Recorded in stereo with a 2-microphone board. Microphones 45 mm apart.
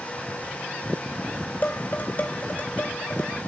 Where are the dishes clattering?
40° left (ahead or behind), 3.5 m.